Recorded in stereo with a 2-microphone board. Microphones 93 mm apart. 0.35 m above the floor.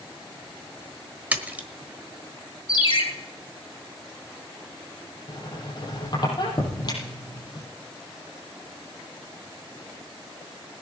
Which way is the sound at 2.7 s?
60° left (ahead or behind).